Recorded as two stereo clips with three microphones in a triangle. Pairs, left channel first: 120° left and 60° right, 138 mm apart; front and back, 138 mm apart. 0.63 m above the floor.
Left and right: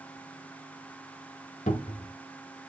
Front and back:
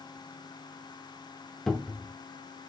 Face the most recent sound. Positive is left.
turn(degrees=90)